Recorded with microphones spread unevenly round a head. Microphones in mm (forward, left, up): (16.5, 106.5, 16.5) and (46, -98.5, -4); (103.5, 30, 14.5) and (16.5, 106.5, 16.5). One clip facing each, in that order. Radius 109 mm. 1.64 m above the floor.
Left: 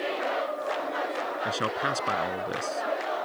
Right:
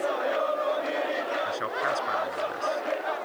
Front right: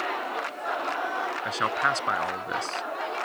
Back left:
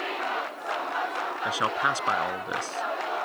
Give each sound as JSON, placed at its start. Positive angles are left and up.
{"t": 1.4, "sound": "a man speaking", "azimuth_deg": 60}